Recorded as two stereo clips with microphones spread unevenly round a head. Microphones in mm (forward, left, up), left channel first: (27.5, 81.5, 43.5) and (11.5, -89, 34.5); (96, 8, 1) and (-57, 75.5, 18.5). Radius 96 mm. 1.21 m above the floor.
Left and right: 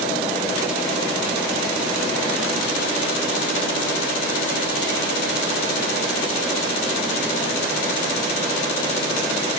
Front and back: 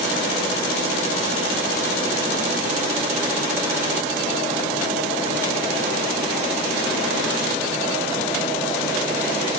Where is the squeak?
No squeak in this recording.